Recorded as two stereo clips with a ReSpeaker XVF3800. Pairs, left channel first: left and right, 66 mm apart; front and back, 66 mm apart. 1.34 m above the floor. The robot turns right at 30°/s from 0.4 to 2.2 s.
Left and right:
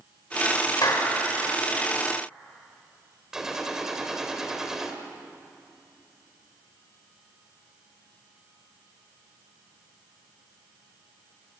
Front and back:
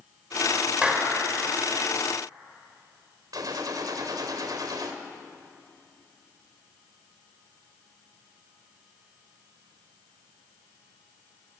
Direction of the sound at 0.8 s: 105° left.